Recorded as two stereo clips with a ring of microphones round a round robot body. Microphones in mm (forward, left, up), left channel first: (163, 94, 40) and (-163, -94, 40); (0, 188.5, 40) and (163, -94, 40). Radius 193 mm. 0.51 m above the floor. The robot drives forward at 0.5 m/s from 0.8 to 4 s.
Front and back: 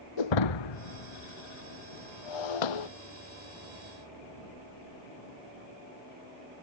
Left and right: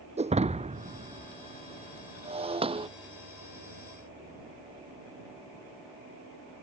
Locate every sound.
0.2 s breaking glass: 10° left; by 2.9 s 15° left